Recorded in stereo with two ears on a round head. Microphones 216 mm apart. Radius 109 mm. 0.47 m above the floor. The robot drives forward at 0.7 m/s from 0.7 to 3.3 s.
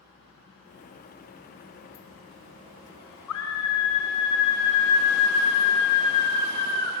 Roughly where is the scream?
Left.